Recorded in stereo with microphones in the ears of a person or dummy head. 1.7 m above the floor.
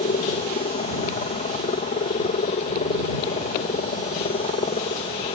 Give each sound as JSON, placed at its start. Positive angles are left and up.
{"t": 0.0, "sound": "a helicopter", "side_deg": 30}